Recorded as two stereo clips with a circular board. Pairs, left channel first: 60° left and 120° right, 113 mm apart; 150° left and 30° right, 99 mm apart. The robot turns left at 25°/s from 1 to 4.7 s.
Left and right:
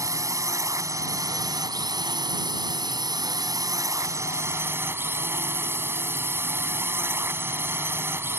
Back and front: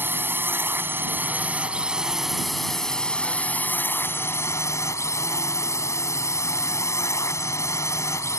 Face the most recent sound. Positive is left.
turn(degrees=-175)